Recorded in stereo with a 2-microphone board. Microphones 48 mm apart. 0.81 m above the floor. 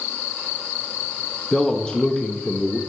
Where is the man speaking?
20° left (ahead or behind), 0.7 m.